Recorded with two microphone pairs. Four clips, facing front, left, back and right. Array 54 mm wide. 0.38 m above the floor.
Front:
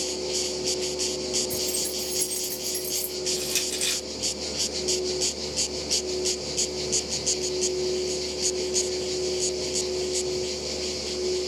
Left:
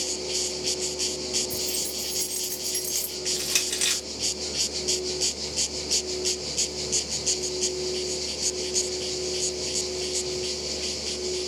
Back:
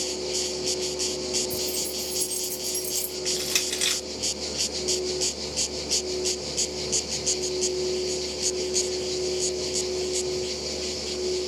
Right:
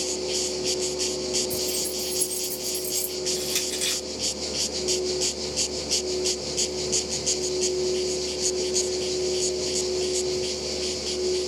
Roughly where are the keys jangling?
Ahead.